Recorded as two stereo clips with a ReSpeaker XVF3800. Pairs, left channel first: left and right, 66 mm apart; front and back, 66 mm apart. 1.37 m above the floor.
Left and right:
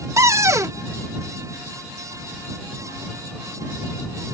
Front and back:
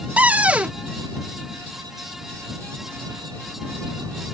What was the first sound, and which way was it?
A cupboard door, 115° right.